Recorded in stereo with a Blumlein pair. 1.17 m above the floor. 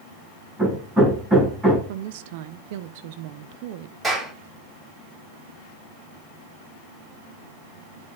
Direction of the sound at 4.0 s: 10° right.